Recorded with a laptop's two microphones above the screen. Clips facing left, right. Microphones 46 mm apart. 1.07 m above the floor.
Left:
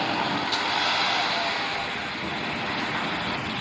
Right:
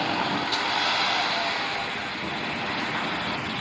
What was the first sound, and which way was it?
Footsteps, 45° left (ahead or behind).